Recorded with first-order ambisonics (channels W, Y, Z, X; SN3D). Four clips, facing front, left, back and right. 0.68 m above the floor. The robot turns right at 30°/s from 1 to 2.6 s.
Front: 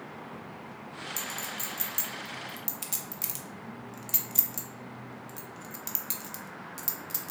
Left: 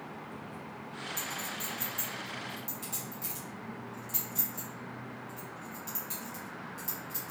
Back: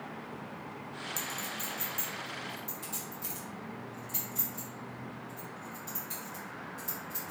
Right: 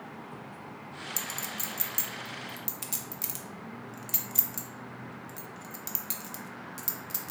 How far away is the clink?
About 0.9 m.